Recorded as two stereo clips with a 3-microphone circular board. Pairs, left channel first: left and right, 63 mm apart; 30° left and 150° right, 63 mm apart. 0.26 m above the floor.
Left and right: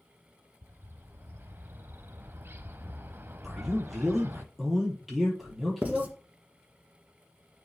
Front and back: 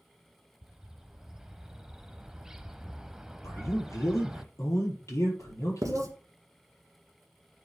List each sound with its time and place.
0.6 s a bird: 75° right, 0.6 m
3.4 s a man speaking: straight ahead, 5.5 m
5.8 s writing: 150° right, 1.8 m